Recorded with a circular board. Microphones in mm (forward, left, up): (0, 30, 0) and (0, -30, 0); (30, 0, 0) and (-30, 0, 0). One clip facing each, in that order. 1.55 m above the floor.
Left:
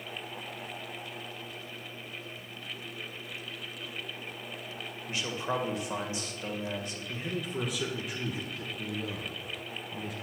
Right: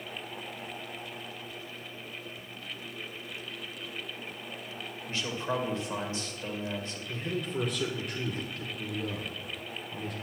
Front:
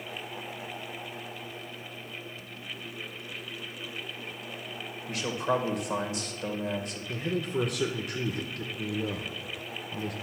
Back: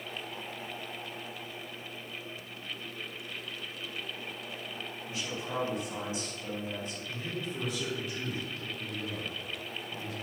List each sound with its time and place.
5.1 s a man speaking: 15° left, 1.7 m
7.1 s a man speaking: 5° left, 1.1 m